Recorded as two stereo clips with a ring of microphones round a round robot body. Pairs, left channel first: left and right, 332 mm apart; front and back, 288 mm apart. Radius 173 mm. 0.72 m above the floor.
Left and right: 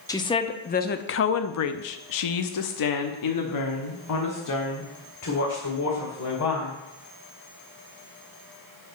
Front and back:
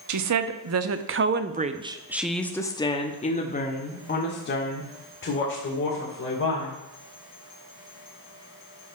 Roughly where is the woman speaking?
Behind.